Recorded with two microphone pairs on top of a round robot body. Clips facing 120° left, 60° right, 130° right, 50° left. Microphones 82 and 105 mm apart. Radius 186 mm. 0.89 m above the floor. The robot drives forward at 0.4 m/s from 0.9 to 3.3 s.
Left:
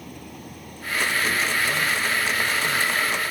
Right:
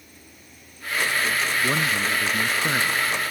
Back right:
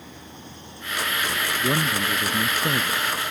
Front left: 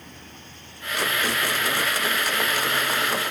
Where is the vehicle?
150° left; by 3.3 s 170° right.